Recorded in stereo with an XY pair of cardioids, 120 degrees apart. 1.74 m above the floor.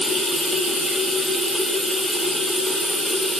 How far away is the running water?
About 1.8 m.